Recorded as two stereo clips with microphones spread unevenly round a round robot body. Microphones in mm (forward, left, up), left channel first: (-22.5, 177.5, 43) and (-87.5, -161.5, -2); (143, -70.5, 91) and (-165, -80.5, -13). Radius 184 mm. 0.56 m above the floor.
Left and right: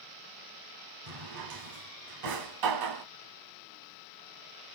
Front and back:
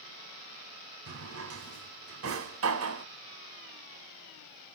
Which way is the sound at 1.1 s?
130° right.